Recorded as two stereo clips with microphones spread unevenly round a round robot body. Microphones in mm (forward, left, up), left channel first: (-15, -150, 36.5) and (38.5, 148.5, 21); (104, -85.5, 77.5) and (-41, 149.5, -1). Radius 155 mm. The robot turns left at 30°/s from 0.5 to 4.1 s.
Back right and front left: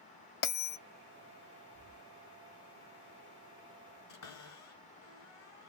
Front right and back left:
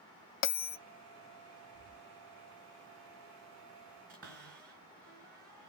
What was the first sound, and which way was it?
A bell, 55° right.